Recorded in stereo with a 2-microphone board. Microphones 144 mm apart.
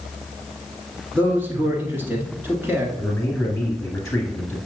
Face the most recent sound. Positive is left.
turn(degrees=5)  # may be behind; listen again after turning